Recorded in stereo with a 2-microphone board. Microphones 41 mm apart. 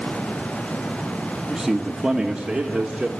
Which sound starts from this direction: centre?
A man speaking, at 1.5 s.